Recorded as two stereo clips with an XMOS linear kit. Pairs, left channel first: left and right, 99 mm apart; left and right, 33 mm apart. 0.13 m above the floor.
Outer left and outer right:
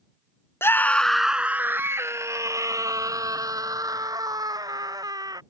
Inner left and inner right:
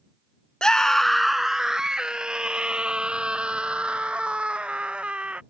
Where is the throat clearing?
I don't hear throat clearing.